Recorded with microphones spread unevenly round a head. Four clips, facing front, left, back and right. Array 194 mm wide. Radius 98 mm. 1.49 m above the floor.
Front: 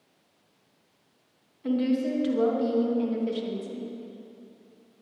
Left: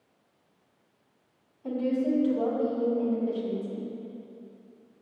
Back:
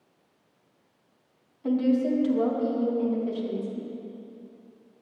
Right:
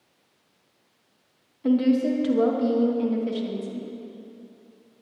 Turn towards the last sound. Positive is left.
turn(degrees=-45)